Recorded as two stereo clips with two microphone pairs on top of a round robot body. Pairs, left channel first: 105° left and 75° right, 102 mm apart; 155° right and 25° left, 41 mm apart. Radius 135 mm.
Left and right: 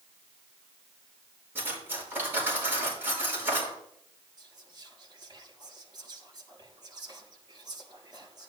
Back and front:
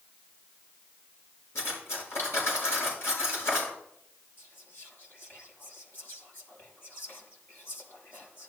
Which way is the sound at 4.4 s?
125° right.